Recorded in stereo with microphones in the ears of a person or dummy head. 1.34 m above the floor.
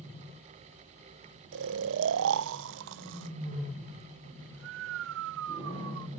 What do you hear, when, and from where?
1.5 s snoring: 75° right (ahead or behind)